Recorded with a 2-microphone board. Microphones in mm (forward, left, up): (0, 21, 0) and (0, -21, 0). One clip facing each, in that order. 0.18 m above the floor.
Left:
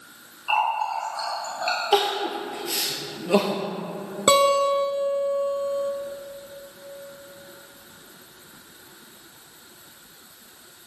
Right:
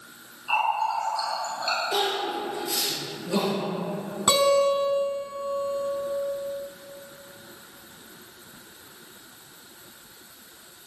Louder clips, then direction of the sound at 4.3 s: Left 2 dB; 40° left (ahead or behind).